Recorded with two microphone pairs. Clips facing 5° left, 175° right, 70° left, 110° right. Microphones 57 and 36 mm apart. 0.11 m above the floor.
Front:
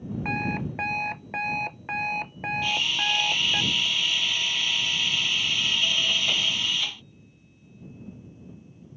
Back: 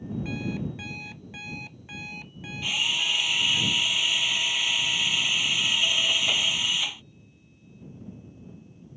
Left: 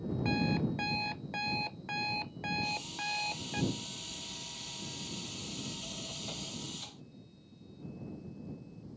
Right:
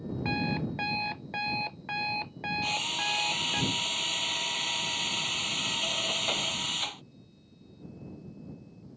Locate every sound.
0.2 s an alarm clock: 35° right
2.6 s a drill: 95° right